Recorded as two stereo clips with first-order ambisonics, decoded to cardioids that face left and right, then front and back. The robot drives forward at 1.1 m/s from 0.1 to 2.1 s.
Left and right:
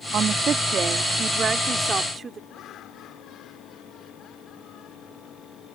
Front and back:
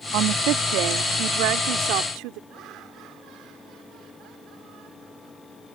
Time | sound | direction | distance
0.1 | a woman speaking | 150° right | ?
2.5 | laughter | 140° left | ?